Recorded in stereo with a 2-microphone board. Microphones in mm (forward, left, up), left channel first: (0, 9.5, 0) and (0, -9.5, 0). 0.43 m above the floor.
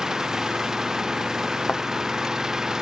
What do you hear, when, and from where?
0.0 s an engine running: 35° right (ahead or behind)
1.7 s a thud: 85° left